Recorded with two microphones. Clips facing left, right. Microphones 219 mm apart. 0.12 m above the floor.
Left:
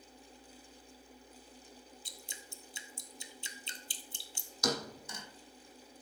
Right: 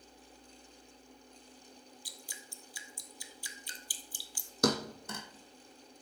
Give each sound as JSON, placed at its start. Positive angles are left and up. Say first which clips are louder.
{"t": 2.0, "sound": "dripping", "louder": "even", "side_deg": 25, "distance_m": 1.0}
{"t": 4.6, "sound": "a thud", "louder": "right 5 dB", "side_deg": -60, "distance_m": 1.3}